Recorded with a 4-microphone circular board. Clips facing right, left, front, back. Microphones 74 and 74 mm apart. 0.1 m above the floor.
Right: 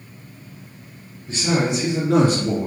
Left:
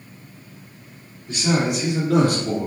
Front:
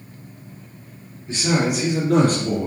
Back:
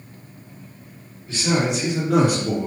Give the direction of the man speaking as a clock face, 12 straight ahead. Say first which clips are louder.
Even, front 1 dB; 2 o'clock.